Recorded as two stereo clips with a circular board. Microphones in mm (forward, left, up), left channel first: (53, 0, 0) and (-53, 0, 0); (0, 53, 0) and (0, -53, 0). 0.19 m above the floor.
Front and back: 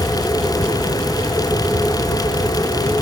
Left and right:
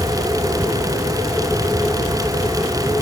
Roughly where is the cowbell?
I don't hear a cowbell.